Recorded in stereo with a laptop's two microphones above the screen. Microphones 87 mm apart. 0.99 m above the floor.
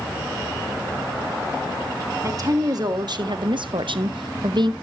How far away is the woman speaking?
About 1.4 m.